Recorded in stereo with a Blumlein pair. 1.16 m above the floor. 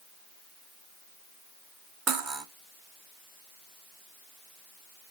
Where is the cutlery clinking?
25° right, 1.9 m.